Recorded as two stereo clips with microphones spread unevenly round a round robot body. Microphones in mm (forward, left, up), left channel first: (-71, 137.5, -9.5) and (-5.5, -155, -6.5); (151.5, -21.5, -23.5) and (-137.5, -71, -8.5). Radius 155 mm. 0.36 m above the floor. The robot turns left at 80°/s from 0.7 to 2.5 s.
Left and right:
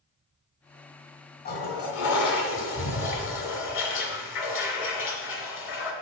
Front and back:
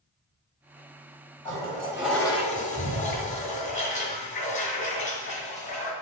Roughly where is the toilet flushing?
Behind left.